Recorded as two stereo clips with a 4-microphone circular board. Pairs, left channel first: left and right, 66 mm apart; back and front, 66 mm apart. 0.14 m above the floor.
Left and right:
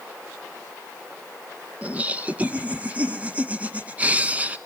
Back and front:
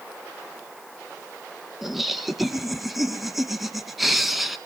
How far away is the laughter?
About 1.2 m.